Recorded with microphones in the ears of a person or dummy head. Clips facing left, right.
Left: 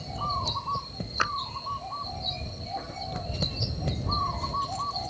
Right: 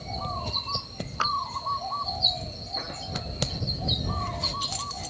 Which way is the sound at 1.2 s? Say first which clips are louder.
Even; 25° left (ahead or behind).